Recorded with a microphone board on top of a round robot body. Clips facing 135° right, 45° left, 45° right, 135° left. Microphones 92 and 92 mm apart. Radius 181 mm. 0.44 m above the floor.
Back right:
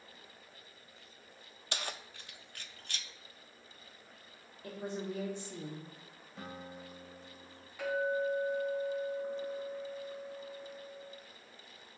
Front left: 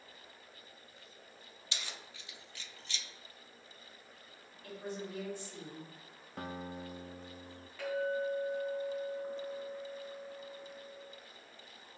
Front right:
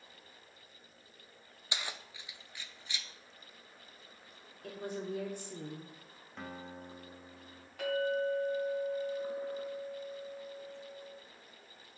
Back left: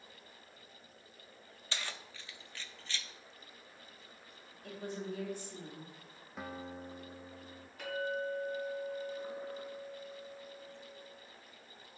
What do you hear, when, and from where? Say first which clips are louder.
1.7 s keys jangling: back right 6 dB, front right 1 dB; 120° right, 0.6 m
4.6 s a woman speaking: back right 3 dB, front right 2 dB; 70° right, 1.4 m
6.4 s a guitar: front left 4 dB, back left 2 dB; 50° left, 0.9 m
7.8 s a clink: back right 2 dB, front right 5 dB; 60° right, 3 m